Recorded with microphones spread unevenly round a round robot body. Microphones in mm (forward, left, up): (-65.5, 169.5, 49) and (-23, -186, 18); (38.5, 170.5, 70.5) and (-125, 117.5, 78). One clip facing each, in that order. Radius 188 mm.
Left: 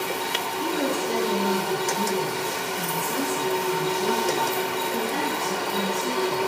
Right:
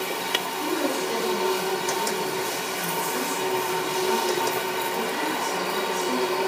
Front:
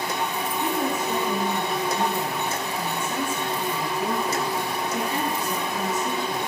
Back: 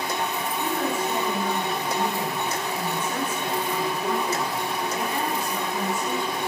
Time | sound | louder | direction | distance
0.6 | a woman speaking | even, front 1 dB | 90° left | 7 m